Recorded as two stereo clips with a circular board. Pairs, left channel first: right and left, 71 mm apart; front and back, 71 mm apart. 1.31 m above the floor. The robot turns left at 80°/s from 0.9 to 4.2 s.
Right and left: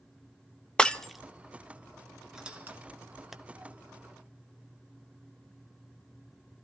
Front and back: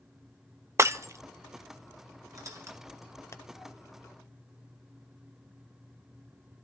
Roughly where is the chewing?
I don't hear chewing.